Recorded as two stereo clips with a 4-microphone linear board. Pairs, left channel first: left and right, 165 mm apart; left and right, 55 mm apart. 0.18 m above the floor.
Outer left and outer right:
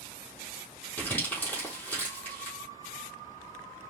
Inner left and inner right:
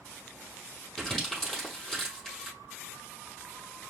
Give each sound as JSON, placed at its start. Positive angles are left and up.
{"t": 1.0, "sound": "crumpling", "side_deg": 10, "distance_m": 3.0}